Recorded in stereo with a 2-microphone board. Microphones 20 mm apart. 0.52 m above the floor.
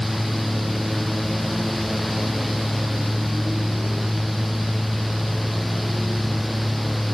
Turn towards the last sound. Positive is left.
No sound to turn to.